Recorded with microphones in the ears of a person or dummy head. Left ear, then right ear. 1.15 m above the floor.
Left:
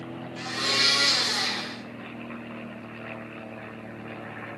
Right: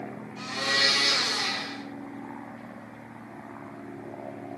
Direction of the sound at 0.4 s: 50° left (ahead or behind).